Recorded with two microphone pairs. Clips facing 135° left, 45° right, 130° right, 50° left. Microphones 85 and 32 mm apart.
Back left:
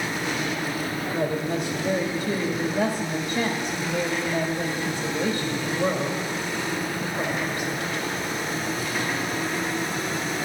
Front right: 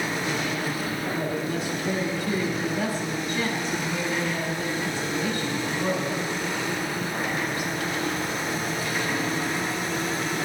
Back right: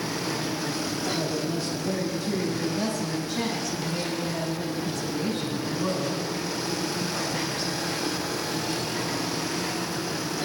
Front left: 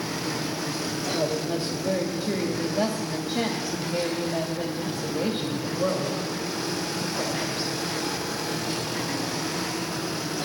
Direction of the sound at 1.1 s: 75° left.